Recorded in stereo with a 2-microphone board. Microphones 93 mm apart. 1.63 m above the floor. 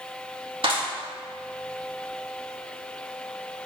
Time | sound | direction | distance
0.6 | a clap | 70° right (ahead or behind) | 2.0 m